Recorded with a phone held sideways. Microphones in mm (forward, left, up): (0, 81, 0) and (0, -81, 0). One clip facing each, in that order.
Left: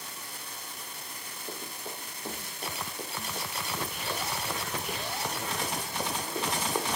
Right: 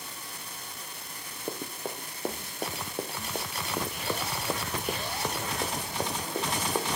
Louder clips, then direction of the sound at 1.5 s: Right 6 dB; 55° right (ahead or behind).